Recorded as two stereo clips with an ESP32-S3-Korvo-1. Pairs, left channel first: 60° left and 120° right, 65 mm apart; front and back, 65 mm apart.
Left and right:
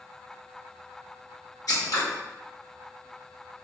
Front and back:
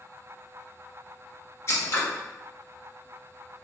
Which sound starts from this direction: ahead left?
Scissors, at 1.7 s.